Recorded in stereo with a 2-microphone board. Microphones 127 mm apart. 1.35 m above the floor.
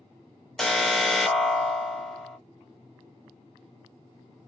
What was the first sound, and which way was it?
An alarm, 5° left (ahead or behind).